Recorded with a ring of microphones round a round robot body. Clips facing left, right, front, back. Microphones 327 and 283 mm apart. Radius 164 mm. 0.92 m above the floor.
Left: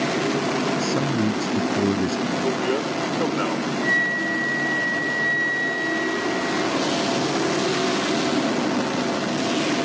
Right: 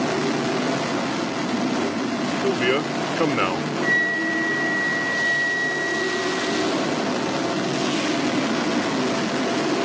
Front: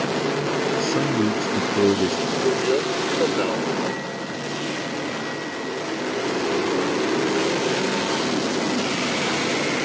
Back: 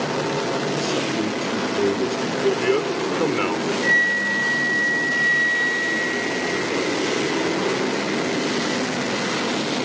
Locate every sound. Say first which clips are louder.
0.8 s a man speaking: left 3 dB, front 2 dB; 65° left
2.4 s a man speaking: right 4 dB, back 2 dB; 120° right
3.8 s a flute: right 1 dB, even; 175° right